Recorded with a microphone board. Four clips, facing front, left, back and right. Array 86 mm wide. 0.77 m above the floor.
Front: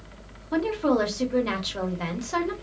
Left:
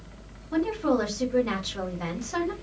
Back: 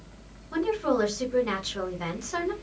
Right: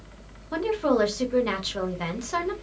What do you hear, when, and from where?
0.5 s a woman speaking: 55° right, 1.2 m